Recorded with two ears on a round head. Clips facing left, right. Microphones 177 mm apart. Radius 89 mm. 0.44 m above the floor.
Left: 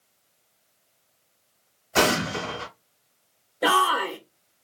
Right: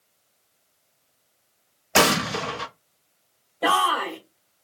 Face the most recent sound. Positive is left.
turn(degrees=15)  # may be behind; listen again after turning